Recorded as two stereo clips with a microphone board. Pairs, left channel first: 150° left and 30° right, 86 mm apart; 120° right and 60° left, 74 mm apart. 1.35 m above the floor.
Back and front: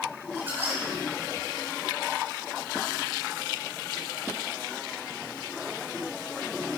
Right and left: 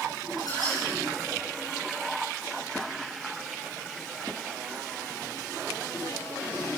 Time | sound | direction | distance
0.4 | a squeak | 95° right | 5.5 m